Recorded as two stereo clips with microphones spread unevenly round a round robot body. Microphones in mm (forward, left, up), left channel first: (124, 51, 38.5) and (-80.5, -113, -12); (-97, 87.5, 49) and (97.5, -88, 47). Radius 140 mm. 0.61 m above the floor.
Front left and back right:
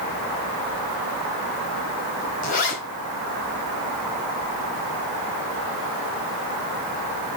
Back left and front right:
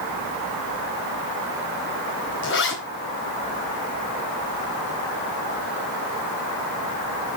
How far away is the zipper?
About 4 m.